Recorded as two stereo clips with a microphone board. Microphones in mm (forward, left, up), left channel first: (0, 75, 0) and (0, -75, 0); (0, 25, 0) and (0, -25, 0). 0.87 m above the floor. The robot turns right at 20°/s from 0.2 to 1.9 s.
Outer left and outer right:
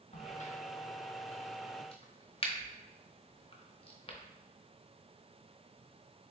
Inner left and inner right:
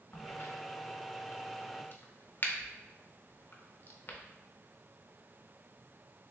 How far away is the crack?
About 0.6 m.